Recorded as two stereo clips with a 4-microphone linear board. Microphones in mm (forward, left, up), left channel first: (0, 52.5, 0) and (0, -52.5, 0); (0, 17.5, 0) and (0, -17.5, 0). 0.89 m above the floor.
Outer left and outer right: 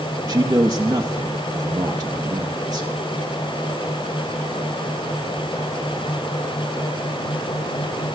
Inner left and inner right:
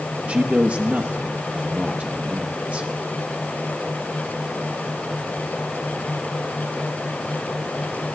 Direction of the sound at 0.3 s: 35° right (ahead or behind).